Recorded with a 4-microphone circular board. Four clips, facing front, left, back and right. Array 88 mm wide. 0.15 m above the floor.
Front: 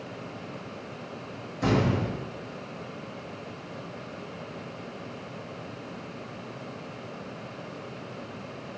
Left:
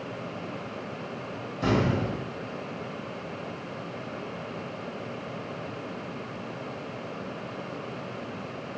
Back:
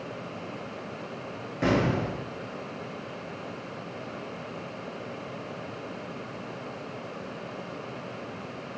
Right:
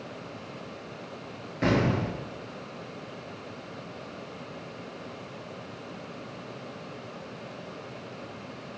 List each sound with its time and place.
1.6 s an explosion: 125° right, 0.9 m